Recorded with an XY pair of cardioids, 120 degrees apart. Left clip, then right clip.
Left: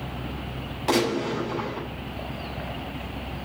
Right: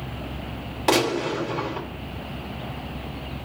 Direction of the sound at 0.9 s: 40° right.